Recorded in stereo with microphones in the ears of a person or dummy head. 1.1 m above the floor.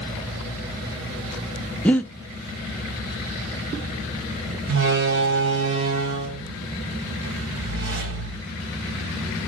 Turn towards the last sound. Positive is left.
turn(degrees=-70)  # may be behind; listen again after turning